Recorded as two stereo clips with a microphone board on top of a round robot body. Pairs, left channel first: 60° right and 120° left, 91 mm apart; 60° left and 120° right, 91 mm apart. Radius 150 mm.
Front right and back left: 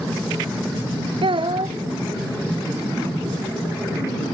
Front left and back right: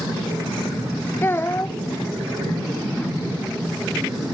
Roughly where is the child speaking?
Behind left.